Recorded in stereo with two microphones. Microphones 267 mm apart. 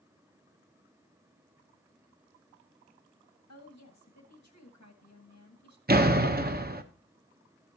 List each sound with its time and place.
3.5 s a woman speaking: 70° left (ahead or behind), 1.6 m
5.9 s a door slam: 35° right (ahead or behind), 0.8 m